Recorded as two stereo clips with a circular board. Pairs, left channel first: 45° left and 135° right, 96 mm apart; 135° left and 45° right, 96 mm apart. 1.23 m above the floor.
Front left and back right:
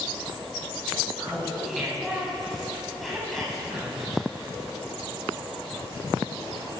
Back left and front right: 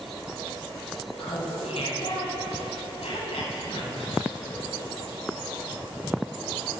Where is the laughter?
135° left, 9.5 m.